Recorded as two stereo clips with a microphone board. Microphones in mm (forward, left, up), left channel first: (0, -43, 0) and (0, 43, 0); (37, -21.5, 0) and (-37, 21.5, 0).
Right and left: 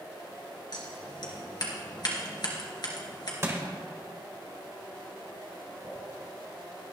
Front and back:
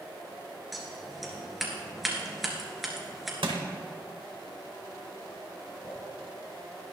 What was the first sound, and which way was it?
Scissors, 120° right.